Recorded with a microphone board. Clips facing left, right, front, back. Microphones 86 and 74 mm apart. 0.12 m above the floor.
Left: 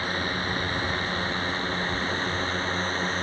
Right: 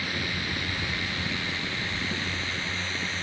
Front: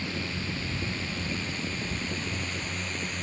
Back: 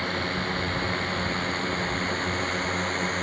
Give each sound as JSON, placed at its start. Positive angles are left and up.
{"t": 0.0, "sound": "a drone", "azimuth_deg": 145}